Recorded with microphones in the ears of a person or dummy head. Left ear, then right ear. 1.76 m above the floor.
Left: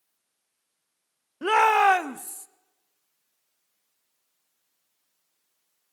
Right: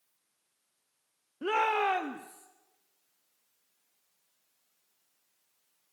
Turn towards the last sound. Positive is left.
turn(degrees=60)  # may be behind; listen again after turning